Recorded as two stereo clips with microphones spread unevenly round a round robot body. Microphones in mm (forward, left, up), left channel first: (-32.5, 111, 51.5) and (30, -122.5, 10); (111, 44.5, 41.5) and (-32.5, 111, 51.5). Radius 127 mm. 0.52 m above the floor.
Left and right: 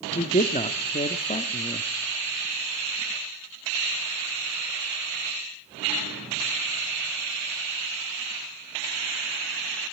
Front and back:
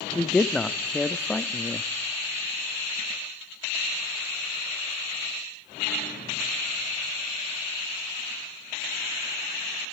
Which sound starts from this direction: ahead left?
A man speaking, at 0.1 s.